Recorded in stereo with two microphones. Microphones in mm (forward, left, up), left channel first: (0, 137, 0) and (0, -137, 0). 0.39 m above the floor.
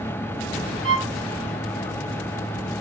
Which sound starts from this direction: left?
A violin, at 0.8 s.